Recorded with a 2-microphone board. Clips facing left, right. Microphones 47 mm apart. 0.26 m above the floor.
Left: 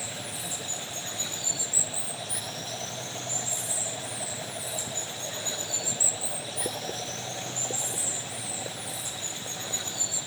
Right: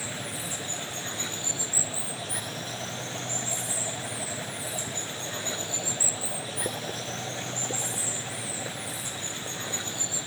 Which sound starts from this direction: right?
Running water, at 0.0 s.